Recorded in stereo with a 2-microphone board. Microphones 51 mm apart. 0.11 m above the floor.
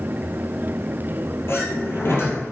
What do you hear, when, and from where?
1.5 s a sliding door: 55° left (ahead or behind), 2.5 m